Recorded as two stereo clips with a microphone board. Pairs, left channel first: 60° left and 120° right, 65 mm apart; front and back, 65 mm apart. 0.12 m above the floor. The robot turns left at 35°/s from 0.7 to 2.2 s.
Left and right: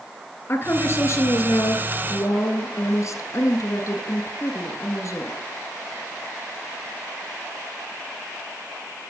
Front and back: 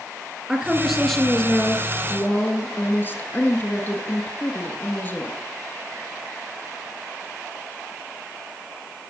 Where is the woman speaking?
100° left, 1.7 m; by 5.4 s 45° left, 1.7 m.